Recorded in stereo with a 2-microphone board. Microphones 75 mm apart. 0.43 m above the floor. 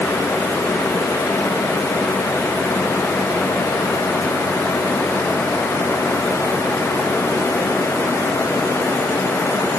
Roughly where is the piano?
No piano in this recording.